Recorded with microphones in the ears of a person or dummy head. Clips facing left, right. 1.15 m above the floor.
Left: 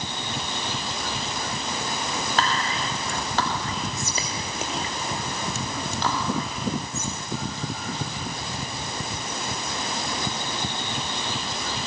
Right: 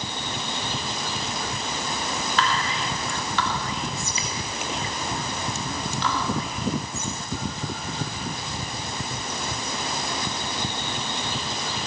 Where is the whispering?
35° left (ahead or behind), 2.5 m.